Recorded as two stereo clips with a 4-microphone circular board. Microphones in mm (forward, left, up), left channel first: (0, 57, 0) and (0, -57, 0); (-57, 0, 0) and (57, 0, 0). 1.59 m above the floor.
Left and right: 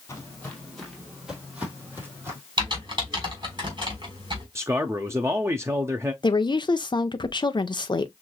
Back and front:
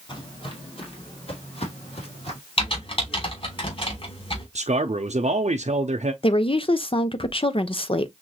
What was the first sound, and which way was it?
Footsteps, 150° left.